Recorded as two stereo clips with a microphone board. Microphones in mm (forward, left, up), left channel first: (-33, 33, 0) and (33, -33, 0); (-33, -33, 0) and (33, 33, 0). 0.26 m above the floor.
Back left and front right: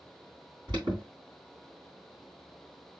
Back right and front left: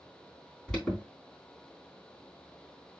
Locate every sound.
0.7 s an alarm: 55° right, 3.5 m